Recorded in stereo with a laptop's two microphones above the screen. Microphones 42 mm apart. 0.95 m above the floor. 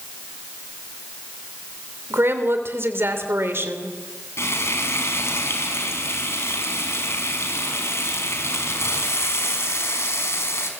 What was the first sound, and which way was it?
A woman speaking, 60° right (ahead or behind).